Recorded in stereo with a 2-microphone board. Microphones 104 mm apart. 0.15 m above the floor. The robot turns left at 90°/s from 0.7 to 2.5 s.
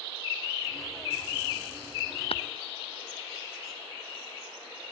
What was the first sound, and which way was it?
Tapping, 70° left (ahead or behind).